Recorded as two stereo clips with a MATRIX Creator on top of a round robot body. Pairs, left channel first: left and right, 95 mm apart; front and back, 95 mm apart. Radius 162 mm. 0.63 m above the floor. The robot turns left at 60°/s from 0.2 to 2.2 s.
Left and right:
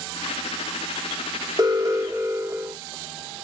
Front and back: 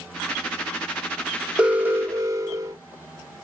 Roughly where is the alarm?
Right.